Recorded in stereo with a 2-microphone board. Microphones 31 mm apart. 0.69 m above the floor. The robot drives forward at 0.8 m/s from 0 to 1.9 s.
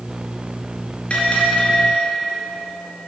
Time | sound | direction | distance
1.1 | a bell | 40° left (ahead or behind) | 3 m